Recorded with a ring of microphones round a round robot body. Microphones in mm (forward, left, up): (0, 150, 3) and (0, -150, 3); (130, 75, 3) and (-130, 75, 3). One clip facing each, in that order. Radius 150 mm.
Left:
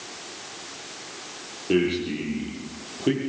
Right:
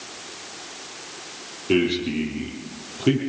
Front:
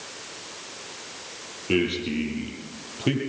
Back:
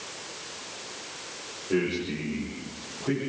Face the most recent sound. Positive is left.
turn(degrees=-20)